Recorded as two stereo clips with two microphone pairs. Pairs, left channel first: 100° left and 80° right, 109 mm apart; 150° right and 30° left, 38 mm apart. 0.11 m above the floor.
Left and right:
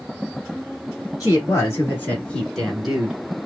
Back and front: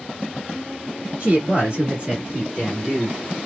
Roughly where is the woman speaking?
Ahead left.